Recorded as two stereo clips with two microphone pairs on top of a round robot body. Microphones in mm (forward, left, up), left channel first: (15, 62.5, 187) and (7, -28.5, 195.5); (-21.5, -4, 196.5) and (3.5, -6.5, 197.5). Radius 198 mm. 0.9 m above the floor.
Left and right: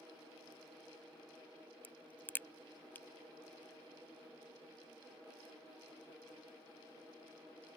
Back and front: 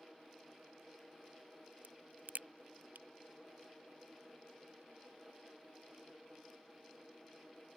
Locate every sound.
1.8 s a crack: 10° left